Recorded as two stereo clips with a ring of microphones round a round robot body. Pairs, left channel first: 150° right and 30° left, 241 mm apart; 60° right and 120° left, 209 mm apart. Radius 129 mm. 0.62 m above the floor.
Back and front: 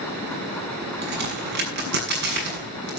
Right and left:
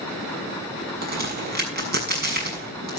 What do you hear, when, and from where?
1.0 s a crack: 80° left, 6.5 m